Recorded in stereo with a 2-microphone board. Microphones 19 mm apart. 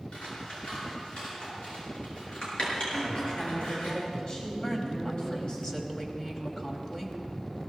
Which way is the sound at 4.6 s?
20° left (ahead or behind).